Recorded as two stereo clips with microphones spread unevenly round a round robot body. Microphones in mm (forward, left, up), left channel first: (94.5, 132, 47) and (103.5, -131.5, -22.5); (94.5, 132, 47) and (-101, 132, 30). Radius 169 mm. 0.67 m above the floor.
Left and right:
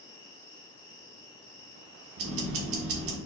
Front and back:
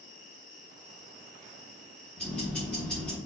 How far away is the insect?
About 1.5 m.